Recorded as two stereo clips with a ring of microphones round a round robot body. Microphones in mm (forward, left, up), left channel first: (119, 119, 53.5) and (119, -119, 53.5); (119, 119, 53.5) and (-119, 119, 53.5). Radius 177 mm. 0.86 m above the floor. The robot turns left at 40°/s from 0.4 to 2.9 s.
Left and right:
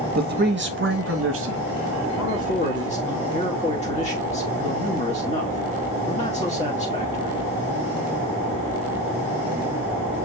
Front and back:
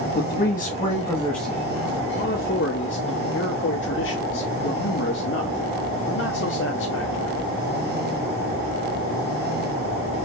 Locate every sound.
0.1 s a man speaking: 45° right, 1.2 m; by 1.6 s 95° right, 1.2 m
2.2 s a man speaking: 60° left, 1.5 m; by 7.4 s 30° left, 1.5 m